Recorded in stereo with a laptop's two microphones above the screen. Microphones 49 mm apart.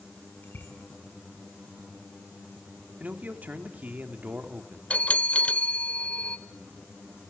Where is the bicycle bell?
35° left (ahead or behind), 7 m.